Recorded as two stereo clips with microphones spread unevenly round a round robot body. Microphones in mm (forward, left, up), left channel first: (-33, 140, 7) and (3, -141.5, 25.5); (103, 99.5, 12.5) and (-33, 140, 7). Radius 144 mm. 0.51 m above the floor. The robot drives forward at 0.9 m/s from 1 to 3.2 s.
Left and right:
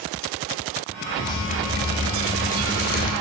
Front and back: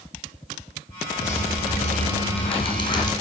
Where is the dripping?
20° left, 3 m; by 3.1 s 45° left, 1.4 m.